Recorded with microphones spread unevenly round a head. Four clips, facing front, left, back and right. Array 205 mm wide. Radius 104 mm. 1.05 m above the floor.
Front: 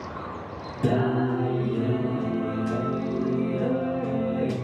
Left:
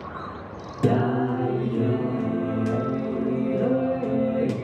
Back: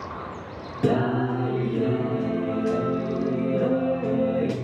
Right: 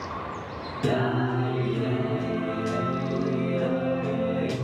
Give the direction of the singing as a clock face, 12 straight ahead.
7 o'clock.